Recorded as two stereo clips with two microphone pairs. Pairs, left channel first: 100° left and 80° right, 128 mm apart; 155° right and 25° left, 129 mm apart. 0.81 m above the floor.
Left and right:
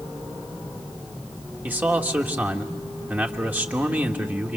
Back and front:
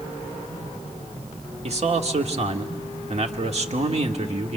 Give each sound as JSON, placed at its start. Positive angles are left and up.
{"t": 1.6, "sound": "a man speaking", "azimuth_deg": 0, "distance_m": 1.6}